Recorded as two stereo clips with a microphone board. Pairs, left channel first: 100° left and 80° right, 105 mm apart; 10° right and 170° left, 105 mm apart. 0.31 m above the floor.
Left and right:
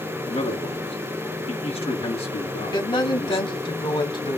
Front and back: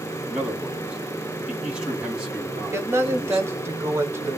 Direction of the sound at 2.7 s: 110° left.